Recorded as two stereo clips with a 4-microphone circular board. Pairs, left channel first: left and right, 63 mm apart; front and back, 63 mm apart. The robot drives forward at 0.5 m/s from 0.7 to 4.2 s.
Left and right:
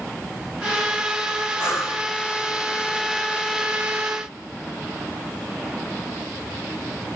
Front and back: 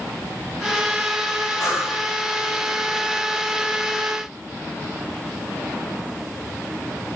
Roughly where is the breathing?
Ahead left.